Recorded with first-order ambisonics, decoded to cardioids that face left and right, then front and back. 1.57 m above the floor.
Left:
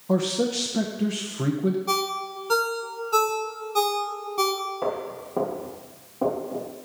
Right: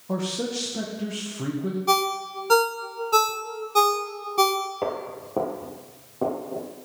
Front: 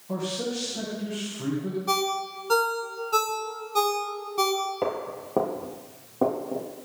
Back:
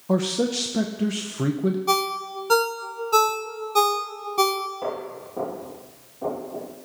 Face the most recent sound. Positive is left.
turn(degrees=-5)